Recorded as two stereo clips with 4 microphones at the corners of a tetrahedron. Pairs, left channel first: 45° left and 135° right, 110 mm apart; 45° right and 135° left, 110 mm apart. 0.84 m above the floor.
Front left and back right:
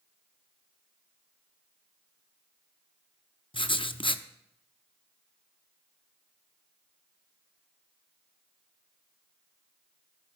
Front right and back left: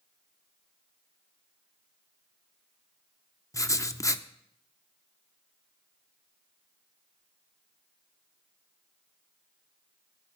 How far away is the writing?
About 0.5 m.